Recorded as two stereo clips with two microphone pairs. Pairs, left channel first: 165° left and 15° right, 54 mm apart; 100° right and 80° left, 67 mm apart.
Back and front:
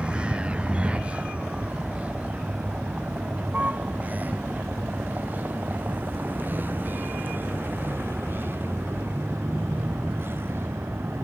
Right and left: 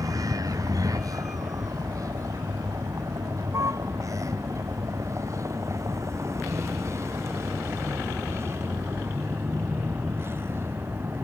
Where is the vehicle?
55° left; by 11.2 s 30° left.